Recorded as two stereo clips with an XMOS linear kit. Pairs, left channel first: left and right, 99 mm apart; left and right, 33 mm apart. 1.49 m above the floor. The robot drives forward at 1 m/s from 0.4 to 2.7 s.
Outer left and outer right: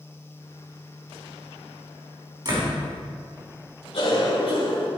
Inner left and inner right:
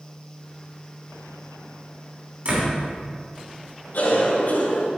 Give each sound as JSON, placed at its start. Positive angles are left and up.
{"t": 2.5, "sound": "a door slam", "side_deg": -45, "distance_m": 3.0}
{"t": 3.9, "sound": "a cough", "side_deg": 70, "distance_m": 3.0}